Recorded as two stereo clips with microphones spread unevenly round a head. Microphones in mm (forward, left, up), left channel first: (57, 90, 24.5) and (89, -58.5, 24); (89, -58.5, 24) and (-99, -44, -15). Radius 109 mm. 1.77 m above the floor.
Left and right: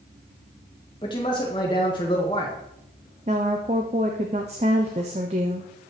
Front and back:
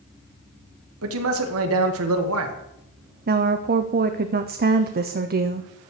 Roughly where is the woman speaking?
Behind right.